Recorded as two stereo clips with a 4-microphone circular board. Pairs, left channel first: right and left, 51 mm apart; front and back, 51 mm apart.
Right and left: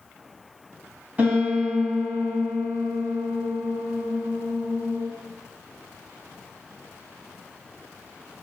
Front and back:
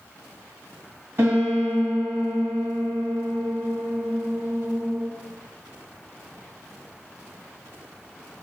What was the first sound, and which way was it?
A piano, 140° left.